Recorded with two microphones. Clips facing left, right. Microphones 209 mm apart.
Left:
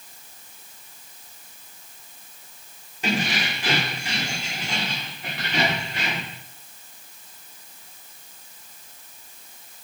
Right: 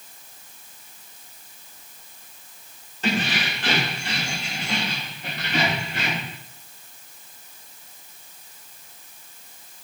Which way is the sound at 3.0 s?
10° left (ahead or behind).